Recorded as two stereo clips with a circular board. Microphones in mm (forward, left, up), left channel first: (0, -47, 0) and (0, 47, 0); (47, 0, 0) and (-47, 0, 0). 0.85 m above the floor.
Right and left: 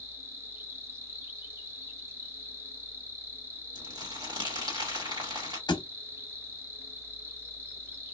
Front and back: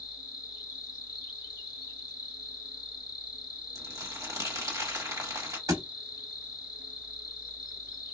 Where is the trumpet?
I don't hear a trumpet.